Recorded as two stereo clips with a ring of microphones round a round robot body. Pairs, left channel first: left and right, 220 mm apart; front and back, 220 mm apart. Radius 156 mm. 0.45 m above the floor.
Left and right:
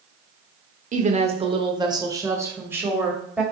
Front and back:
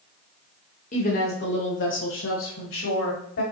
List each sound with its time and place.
0.9 s a woman speaking: 50° right, 1.0 m; by 3.4 s 5° right, 2 m